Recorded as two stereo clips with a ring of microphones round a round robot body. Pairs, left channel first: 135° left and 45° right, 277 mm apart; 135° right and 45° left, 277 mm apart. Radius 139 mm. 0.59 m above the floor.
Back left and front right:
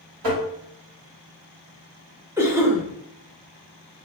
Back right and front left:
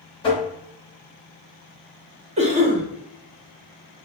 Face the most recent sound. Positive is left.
turn(degrees=25)